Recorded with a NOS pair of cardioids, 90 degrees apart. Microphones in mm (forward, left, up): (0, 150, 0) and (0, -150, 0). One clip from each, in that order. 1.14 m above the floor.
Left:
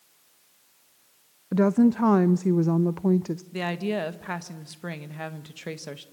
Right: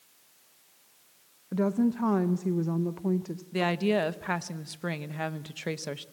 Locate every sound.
1.5 s a woman speaking: 30° left, 0.5 m
3.5 s a woman speaking: 10° right, 1.1 m